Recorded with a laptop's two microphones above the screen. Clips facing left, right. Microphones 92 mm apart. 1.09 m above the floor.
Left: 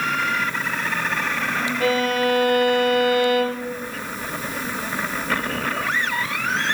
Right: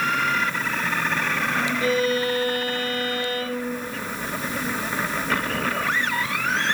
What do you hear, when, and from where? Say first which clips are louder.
1.8 s a violin: left 3 dB; 65° left (ahead or behind), 1.6 m